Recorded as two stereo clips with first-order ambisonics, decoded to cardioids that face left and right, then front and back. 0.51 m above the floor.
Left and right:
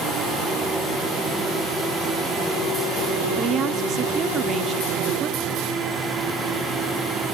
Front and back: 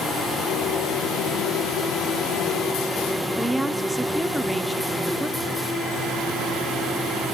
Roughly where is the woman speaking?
Right.